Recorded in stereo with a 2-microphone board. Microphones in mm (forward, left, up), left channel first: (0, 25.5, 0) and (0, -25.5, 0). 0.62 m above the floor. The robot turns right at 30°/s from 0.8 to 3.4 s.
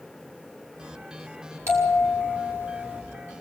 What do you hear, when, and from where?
1.7 s a bell: 60° right, 8.5 m; by 3.0 s 20° right, 8.5 m